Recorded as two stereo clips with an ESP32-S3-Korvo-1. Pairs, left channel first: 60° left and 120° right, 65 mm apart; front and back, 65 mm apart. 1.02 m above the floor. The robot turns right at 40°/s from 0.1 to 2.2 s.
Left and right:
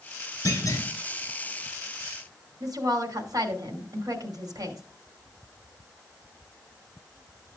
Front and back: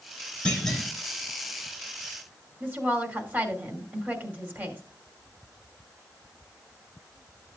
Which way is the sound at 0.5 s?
70° left.